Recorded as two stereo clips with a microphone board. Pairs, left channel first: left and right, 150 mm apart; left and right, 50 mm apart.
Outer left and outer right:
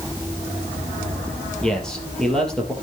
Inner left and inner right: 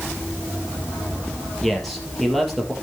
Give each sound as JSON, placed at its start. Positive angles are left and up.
{"t": 1.6, "sound": "a man speaking", "side_deg": 5, "distance_m": 4.0}